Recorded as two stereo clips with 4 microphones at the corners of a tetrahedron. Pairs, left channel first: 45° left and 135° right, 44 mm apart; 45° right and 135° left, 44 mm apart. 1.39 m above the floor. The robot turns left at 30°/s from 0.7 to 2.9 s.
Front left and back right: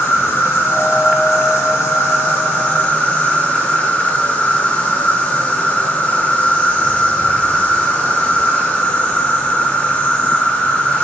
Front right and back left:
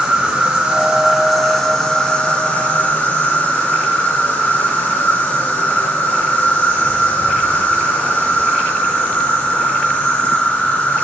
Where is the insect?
60° left, 1.2 m; by 11.0 s 5° right, 1.2 m.